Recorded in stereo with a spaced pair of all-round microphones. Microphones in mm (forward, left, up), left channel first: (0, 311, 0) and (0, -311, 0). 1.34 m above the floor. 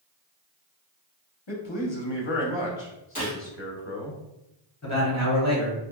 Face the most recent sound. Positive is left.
turn(degrees=25)  # may be behind; listen again after turning